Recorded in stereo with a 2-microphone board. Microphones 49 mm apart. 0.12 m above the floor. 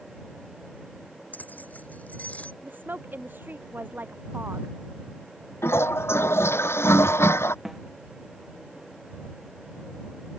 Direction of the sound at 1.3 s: 35° left (ahead or behind).